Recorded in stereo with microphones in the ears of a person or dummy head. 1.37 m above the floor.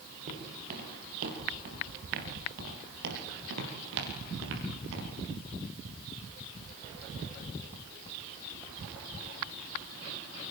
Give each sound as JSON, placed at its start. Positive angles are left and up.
{"t": 0.3, "sound": "footsteps", "side_deg": -55, "distance_m": 9.5}